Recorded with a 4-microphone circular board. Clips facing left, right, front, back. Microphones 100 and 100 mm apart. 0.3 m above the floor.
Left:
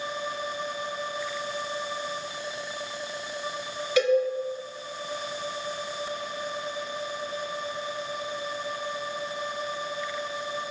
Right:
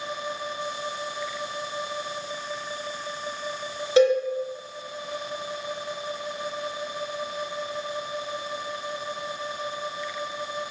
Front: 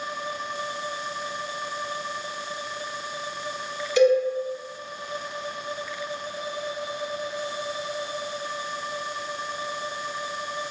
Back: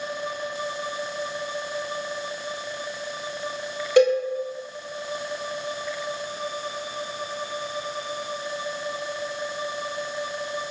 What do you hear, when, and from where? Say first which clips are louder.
4.0 s a cowbell: right 4 dB, back 1 dB; 150° right, 0.7 m